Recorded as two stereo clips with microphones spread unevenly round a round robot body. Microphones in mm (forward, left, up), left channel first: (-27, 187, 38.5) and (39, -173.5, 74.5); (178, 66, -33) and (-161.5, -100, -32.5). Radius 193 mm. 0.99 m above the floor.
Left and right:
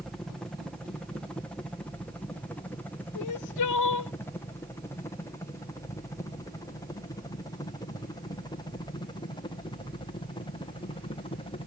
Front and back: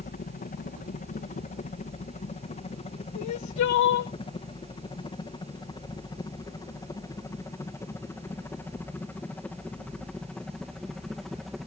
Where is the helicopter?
30° left; by 11.7 s 115° left.